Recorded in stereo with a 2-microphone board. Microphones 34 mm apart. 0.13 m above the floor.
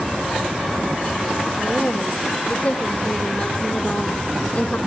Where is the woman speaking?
40° left (ahead or behind), 5 m.